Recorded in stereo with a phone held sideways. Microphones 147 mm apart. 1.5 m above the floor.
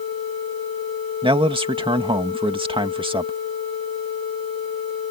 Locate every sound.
1.2 s a man speaking: 35° right (ahead or behind)